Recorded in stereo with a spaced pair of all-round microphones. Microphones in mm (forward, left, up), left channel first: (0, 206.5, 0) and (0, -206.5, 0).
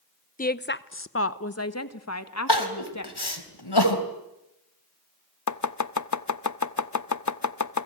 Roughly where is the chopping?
Left.